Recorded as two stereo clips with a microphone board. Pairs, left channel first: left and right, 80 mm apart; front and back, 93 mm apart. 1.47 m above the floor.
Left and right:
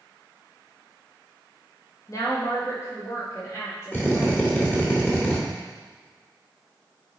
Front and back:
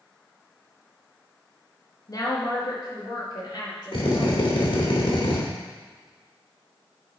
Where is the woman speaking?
45° left, 1.9 m; by 4.9 s 40° left, 5.5 m.